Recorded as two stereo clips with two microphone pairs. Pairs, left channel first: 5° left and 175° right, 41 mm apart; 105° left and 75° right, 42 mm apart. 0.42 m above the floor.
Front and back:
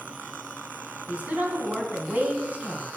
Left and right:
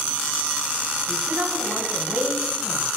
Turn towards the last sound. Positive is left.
turn(degrees=-120)